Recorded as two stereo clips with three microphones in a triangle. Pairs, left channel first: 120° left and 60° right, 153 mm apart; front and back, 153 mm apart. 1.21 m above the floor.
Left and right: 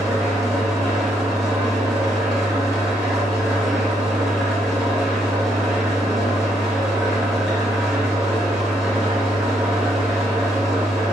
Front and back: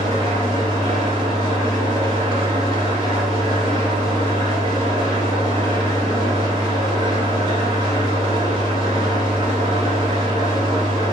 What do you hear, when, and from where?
0.0 s an engine running: 150° right, 1.3 m